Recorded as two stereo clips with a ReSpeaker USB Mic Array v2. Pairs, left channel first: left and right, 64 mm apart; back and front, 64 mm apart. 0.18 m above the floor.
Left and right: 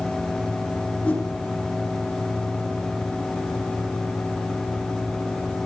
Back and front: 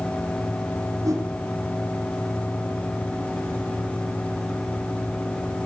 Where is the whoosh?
25° left, 6.5 m.